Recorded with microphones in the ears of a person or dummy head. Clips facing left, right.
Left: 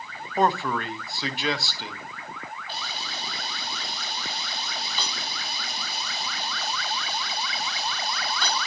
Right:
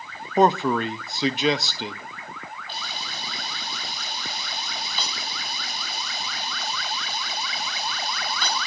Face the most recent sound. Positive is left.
turn(degrees=10)  # may be behind; listen again after turning